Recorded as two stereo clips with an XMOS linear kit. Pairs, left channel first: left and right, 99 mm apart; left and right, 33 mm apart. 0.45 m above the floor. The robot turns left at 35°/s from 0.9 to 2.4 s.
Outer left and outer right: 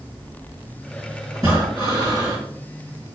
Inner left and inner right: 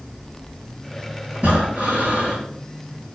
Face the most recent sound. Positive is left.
turn(degrees=-70)